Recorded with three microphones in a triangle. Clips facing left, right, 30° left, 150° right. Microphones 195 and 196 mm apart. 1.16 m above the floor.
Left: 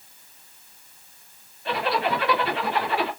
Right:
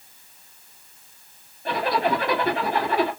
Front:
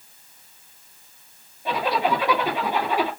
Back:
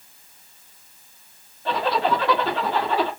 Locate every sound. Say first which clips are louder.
1.6 s a zipper: right 2 dB, back 1 dB; 45° right, 1.9 m